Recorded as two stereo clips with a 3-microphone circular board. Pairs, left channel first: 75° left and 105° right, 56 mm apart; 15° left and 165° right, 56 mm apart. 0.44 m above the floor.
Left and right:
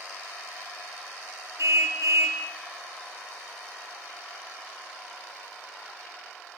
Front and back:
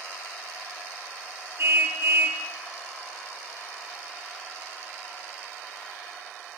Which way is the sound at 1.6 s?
120° right.